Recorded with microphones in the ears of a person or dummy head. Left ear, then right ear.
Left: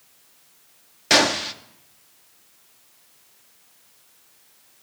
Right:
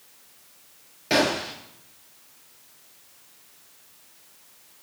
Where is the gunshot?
40° left (ahead or behind), 0.8 m.